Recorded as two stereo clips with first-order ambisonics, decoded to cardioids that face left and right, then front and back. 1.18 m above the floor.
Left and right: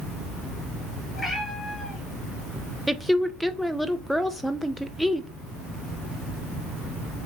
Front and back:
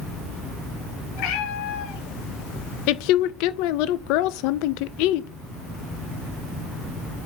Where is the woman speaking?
Straight ahead, 0.6 m.